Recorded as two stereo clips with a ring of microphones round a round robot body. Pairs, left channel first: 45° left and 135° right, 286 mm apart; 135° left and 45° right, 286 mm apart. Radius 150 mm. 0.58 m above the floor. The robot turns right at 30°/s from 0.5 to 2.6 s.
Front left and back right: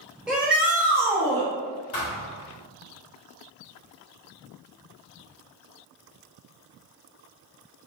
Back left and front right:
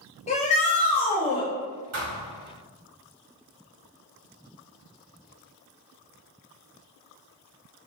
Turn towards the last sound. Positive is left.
turn(degrees=15)